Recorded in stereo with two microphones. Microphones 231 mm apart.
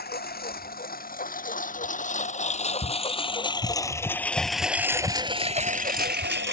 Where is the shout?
30° left (ahead or behind).